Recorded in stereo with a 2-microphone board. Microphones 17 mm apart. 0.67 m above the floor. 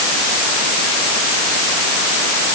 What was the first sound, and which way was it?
Only background noise.